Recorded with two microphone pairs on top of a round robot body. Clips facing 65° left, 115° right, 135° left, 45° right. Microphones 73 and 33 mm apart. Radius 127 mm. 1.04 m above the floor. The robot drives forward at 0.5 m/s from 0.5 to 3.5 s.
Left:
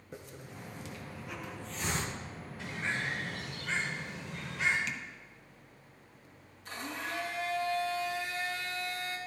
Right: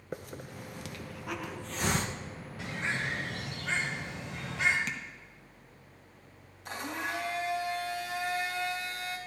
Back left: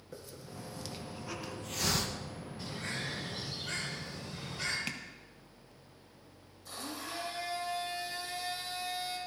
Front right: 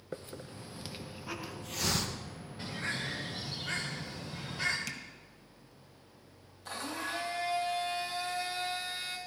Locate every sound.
0.1 s a hiss: 95° right, 0.7 m; by 2.1 s 145° right, 1.1 m
2.6 s a bird: 85° right, 1.3 m; by 4.8 s 110° right, 1.4 m
4.9 s tapping: 170° right, 1.0 m
6.7 s a blender: 80° right, 1.8 m